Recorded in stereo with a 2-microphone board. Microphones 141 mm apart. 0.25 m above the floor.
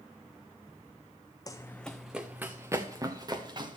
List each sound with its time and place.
1.5 s running footsteps: 25° left (ahead or behind), 0.8 m; by 3.8 s 35° right (ahead or behind), 2.0 m